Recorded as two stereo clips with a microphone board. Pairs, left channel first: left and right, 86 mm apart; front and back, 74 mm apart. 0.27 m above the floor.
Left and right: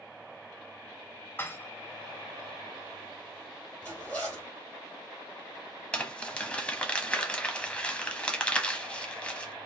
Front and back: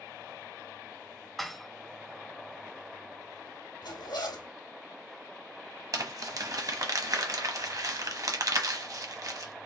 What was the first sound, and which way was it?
Dishes clattering, 85° left.